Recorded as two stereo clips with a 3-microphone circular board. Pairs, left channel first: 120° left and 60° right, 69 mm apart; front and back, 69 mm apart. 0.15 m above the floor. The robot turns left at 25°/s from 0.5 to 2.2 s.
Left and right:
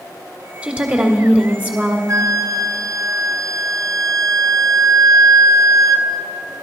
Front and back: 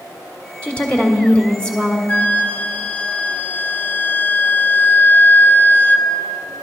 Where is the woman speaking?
25° right, 1.3 m; by 2.0 s 60° right, 1.3 m.